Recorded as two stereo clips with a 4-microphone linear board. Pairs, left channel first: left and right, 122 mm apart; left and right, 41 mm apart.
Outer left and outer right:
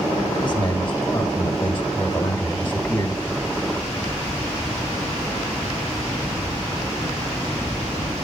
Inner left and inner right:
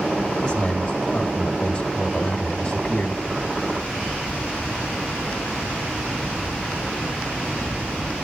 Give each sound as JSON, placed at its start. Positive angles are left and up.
{"t": 0.4, "sound": "a man speaking", "side_deg": 15, "distance_m": 1.5}